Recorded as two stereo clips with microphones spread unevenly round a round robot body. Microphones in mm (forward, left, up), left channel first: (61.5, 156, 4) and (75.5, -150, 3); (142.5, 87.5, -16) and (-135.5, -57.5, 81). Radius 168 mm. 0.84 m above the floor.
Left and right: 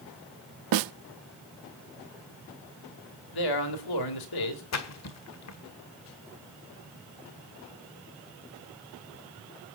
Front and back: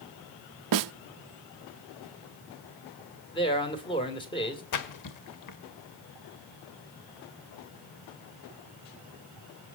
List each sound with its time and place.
0.7 s a snare drum: 120° right, 0.5 m
3.3 s a man speaking: 100° left, 2.5 m
4.7 s a splash: 55° left, 1.5 m